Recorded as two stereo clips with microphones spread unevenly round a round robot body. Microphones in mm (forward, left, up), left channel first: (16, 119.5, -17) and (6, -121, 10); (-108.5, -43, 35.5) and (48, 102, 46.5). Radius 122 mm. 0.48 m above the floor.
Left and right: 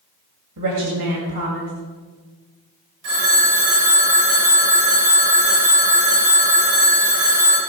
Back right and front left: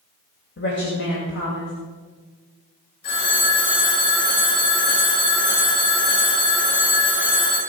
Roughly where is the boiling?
No boiling in this recording.